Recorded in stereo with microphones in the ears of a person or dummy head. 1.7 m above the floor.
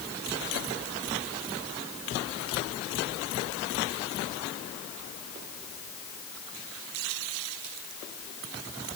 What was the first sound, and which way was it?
Only background noise.